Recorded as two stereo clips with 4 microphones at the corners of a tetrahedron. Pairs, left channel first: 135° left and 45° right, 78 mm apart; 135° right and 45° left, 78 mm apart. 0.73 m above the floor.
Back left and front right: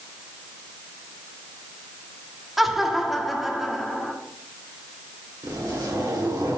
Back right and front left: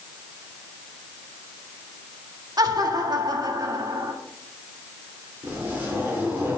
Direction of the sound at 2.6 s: 45° left.